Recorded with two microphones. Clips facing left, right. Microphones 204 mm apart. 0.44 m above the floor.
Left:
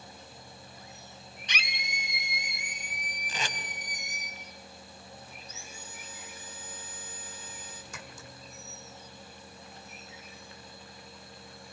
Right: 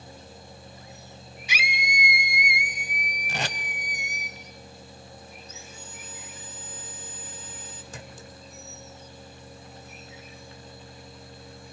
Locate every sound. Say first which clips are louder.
1.5 s a scream: right 7 dB; 10° right (ahead or behind), 0.9 m
3.3 s tape being pulled: right 5 dB; 85° right, 1.0 m
5.4 s sawing: right 3 dB; 10° left (ahead or behind), 3 m
7.9 s a clink: right 4 dB; 35° right (ahead or behind), 1.3 m